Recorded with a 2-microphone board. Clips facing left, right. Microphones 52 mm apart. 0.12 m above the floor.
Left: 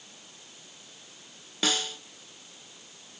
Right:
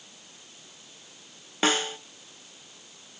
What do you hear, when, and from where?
1.6 s a snare drum: 35° right (ahead or behind), 0.7 m